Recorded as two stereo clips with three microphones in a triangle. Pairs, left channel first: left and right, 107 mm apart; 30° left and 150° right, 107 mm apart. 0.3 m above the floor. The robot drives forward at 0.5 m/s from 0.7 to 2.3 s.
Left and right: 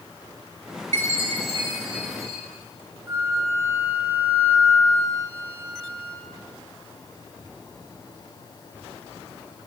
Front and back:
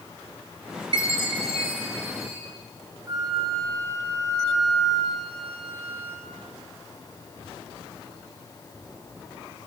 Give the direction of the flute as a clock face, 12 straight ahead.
5 o'clock.